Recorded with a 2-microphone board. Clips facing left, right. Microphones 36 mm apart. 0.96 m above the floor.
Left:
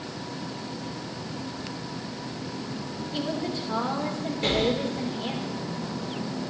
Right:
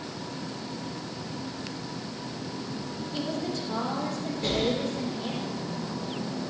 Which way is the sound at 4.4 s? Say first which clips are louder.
Left 3 dB; 60° left (ahead or behind).